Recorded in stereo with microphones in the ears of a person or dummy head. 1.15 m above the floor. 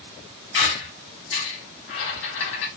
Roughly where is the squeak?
Left.